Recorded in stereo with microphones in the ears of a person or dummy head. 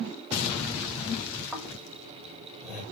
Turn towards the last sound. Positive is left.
turn(degrees=0)  # may be behind; listen again after turning